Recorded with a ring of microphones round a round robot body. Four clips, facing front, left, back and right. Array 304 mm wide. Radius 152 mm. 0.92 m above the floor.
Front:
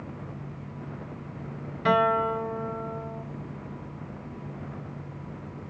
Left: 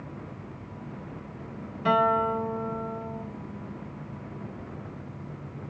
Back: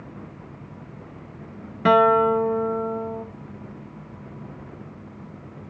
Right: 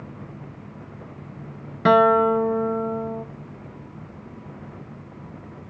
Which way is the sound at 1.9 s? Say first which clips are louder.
Right 7 dB, back 7 dB; 125° right.